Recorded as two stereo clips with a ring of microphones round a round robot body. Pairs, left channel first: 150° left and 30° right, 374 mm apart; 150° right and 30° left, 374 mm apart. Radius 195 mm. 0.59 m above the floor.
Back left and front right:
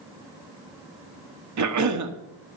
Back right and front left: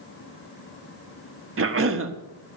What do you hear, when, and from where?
1.6 s a cough: 15° right, 1.2 m